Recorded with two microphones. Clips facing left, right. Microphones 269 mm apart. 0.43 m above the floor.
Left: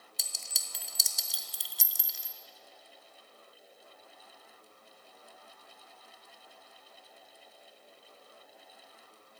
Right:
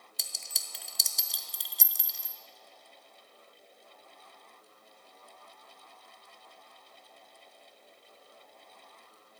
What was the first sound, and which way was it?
A clink, centre (ahead or behind).